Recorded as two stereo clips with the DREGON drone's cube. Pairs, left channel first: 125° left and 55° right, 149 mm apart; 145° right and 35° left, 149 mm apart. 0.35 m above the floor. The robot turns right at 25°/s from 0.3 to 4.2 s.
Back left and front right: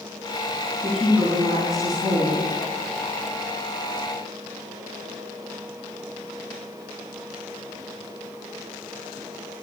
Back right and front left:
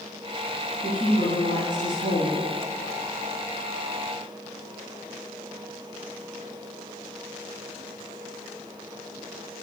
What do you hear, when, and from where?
0.8 s a woman speaking: 35° left, 3.5 m; by 2.4 s 75° left, 3.5 m